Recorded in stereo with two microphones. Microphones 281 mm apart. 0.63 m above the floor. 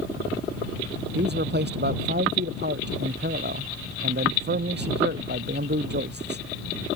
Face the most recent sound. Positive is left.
turn(degrees=-40)  # may be behind; listen again after turning